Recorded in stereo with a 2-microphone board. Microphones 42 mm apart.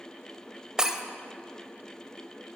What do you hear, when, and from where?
0.8 s breaking glass: 15° right (ahead or behind), 0.9 m